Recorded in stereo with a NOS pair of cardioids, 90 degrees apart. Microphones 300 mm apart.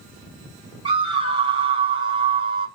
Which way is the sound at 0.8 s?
20° right.